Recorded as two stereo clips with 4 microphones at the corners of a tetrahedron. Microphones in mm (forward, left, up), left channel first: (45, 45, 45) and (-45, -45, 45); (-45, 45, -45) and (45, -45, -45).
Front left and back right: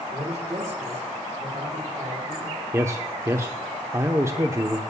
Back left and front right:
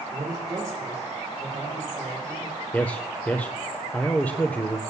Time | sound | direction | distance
0.1 | a man speaking | 110° right | 4.5 m
2.7 | a man speaking | 170° right | 0.8 m